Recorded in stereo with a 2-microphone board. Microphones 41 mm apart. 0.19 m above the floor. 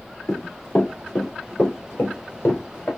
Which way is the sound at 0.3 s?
15° left (ahead or behind).